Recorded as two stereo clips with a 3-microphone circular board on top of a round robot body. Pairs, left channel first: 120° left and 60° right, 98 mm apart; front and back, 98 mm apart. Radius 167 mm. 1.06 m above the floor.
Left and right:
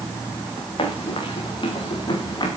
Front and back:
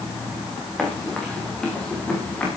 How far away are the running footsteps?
About 8 m.